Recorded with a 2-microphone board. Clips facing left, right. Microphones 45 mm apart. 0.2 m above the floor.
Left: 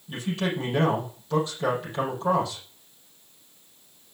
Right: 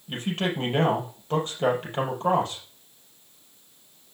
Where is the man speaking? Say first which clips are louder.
Even; 50° right (ahead or behind), 6 m.